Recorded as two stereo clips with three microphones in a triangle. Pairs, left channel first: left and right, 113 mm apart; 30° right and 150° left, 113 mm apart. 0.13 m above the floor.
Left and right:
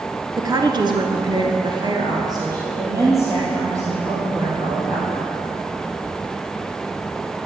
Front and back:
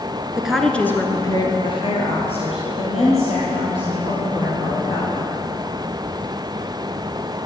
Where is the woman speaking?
130° right, 1.5 m; by 5.1 s 25° right, 5.5 m.